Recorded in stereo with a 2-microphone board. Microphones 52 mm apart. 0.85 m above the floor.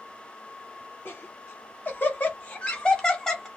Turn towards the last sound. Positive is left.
turn(degrees=10)  # may be behind; listen again after turning